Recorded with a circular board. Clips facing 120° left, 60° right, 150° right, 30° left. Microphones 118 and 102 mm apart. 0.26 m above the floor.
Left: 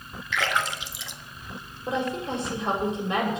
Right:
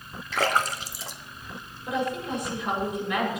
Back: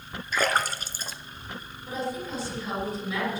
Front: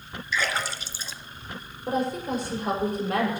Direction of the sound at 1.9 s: 60° left.